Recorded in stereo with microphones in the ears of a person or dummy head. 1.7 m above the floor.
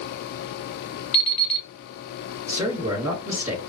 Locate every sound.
1.1 s an alarm clock: 30° left (ahead or behind), 0.9 m
2.5 s a man speaking: 15° right (ahead or behind), 3 m